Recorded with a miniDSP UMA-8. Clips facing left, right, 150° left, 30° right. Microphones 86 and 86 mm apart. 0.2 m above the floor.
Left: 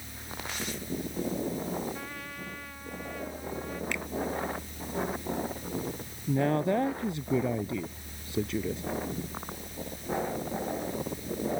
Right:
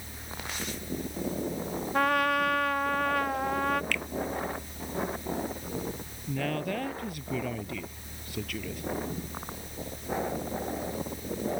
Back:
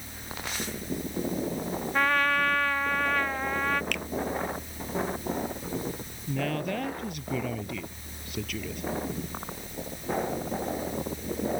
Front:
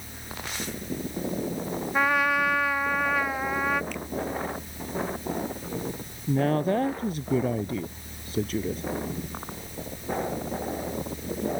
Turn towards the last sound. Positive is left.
turn(degrees=25)